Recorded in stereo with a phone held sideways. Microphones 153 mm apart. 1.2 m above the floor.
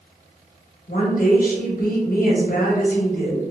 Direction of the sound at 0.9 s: 70° left (ahead or behind).